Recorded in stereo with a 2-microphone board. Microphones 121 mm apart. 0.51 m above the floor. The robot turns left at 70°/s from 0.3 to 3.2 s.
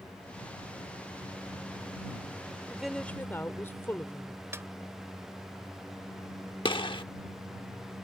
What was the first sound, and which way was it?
A woman speaking, 165° right.